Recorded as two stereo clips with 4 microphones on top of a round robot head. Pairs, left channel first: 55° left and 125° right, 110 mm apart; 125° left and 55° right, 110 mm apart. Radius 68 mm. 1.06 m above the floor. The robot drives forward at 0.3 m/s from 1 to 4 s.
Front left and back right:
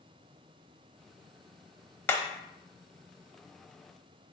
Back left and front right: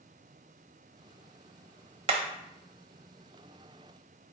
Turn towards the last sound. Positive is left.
turn(degrees=-45)